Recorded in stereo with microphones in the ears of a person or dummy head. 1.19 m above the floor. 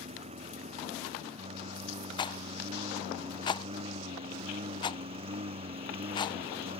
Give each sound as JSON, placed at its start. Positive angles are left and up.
{"t": 0.0, "sound": "a lawn mower", "side_deg": -30}
{"t": 2.2, "sound": "a rattle", "side_deg": 20}